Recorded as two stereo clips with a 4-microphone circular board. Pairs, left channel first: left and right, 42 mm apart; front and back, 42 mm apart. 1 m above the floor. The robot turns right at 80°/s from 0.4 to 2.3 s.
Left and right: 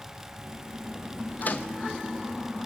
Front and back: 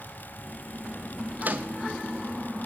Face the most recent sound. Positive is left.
turn(degrees=-160)